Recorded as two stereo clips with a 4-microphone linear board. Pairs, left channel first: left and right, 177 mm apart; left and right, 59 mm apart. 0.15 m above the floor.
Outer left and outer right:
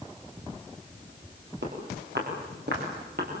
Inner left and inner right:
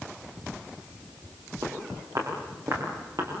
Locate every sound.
1.6 s footsteps: 80° right, 7 m; by 3.3 s 65° right (ahead or behind), 7 m